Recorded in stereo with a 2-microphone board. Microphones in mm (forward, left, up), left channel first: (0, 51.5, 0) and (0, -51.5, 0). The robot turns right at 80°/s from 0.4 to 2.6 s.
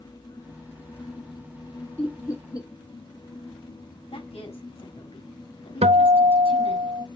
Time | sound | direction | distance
2.0 | laughter | 15° left (ahead or behind) | 1.6 m
4.1 | a woman speaking | 65° left (ahead or behind) | 4 m
5.8 | a guitar | 80° right | 0.5 m